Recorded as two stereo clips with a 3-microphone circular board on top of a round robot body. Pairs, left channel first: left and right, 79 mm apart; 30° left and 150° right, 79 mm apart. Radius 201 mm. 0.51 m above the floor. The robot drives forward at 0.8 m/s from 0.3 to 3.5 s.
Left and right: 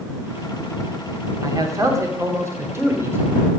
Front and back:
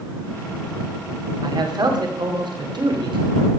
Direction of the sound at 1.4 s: 130° right.